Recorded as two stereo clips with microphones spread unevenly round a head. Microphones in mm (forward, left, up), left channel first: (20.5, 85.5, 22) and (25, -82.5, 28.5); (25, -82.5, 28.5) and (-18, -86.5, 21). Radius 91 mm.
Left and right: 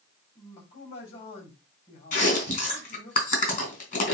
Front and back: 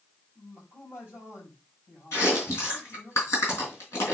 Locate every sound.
0.3 s a man speaking: 65° left, 5.5 m
2.1 s chewing: 55° left, 3 m